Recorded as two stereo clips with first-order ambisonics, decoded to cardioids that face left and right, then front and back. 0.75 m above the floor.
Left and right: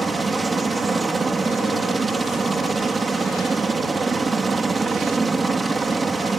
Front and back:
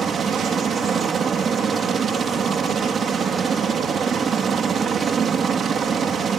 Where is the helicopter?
155° right.